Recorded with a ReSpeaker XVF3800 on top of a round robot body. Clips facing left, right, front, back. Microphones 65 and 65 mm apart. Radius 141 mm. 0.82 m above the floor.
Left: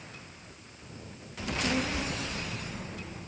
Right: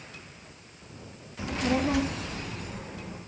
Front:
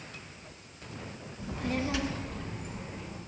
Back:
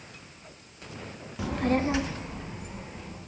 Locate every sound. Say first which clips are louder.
1.4 s a child speaking: right 4 dB, back 7 dB; 165° right, 0.7 m; by 3.2 s 85° right, 2.5 m